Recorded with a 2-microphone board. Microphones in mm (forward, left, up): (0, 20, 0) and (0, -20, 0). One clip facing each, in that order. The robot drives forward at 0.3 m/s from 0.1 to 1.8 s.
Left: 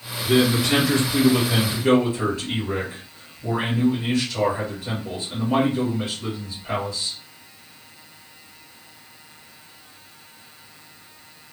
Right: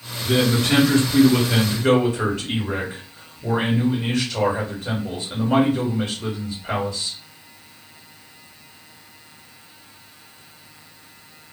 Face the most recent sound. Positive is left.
turn(degrees=-45)  # may be behind; listen again after turning